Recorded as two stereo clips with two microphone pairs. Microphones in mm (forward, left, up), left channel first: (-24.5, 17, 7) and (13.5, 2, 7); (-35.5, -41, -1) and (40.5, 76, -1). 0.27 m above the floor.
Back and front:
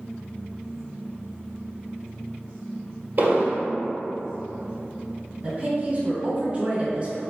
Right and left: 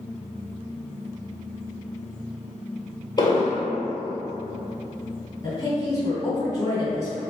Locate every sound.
3.2 s an explosion: 60° right, 1.3 m
5.4 s a woman speaking: 65° right, 1.9 m